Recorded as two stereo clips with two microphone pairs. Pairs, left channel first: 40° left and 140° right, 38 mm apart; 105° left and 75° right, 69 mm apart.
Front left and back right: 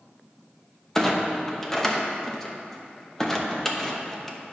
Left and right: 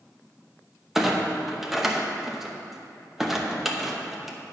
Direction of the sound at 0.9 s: 10° right.